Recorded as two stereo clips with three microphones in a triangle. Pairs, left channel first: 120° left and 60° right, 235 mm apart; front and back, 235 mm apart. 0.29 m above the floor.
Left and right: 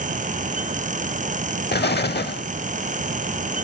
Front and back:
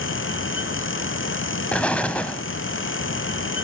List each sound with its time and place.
1.7 s an explosion: 85° left, 0.7 m